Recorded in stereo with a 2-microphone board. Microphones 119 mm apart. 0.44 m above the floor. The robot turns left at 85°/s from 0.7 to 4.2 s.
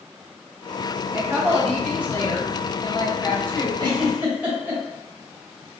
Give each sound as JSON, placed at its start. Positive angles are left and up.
{"t": 1.1, "sound": "a woman speaking", "azimuth_deg": -140, "distance_m": 1.2}
{"t": 3.8, "sound": "a giggle", "side_deg": -45, "distance_m": 1.3}